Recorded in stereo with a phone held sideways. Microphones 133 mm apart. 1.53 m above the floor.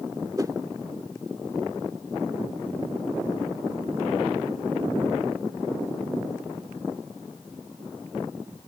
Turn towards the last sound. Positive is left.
turn(degrees=-25)  # may be behind; listen again after turning